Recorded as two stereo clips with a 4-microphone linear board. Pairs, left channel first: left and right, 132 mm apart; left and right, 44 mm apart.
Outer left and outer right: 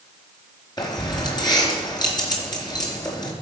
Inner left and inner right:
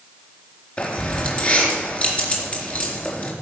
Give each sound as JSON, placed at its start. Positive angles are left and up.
{"t": 0.8, "sound": "keys jangling", "side_deg": 30, "distance_m": 3.5}